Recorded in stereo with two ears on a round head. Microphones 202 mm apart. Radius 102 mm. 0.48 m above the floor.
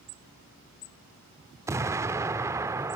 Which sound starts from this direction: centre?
An explosion, at 1.7 s.